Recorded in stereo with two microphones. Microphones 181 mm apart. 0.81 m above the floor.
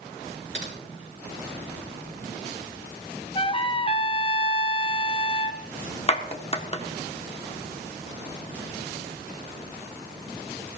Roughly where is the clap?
Left.